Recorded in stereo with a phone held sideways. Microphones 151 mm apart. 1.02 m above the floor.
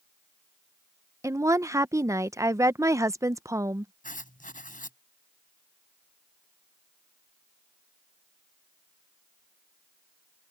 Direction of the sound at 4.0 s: 60° left (ahead or behind).